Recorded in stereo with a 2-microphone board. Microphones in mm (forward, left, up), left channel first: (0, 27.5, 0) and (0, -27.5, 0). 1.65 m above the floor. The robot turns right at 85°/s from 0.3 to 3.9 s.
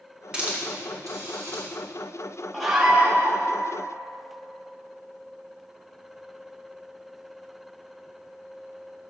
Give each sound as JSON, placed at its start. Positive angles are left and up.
{"t": 0.3, "sound": "a hiss", "side_deg": -20, "distance_m": 2.0}
{"t": 2.5, "sound": "a scream", "azimuth_deg": 175, "distance_m": 1.5}